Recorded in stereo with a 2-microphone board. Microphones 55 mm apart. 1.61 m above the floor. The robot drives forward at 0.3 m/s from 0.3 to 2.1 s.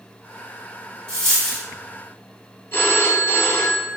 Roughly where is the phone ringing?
Left.